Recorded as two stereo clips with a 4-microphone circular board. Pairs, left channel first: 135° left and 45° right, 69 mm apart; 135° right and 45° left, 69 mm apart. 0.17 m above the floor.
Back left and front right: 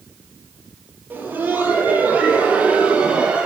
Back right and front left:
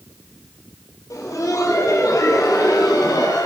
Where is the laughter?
105° right, 4.5 m; by 3.5 s 120° right, 4 m.